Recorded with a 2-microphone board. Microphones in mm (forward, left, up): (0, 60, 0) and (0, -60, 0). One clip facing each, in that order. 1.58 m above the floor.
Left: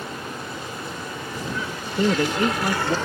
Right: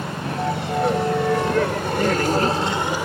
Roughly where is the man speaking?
Left.